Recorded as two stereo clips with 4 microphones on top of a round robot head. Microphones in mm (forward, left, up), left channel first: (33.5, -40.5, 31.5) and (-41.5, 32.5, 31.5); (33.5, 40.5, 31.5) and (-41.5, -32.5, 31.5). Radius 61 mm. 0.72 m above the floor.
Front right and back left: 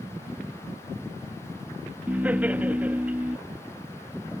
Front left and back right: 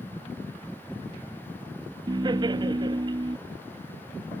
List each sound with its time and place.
2.1 s laughter: 155° right